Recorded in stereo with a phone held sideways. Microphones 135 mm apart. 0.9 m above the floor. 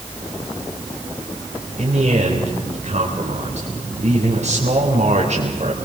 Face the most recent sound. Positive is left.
turn(degrees=-60)  # may be behind; listen again after turning